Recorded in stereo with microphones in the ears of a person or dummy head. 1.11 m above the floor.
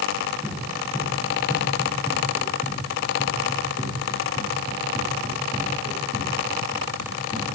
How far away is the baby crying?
I don't hear a baby crying.